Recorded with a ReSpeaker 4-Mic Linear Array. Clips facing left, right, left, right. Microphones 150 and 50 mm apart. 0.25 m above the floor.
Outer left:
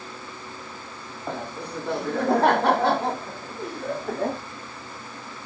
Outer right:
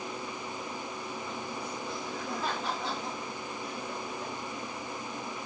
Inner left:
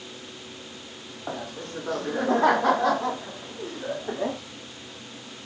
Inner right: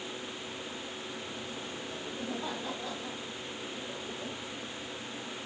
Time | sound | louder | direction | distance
1.3 | laughter | outer left 5 dB, inner left 6 dB | 65° left (ahead or behind) | ?